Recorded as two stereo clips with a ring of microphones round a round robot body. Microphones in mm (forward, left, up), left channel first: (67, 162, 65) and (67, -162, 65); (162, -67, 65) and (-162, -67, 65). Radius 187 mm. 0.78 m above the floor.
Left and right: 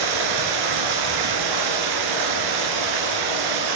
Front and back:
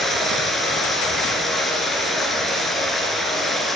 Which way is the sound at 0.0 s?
90° right.